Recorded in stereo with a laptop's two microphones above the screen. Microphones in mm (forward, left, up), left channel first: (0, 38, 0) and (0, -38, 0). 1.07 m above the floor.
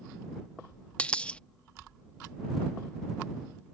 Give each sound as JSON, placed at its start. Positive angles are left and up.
{"t": 1.0, "sound": "a dropped coin", "side_deg": 15}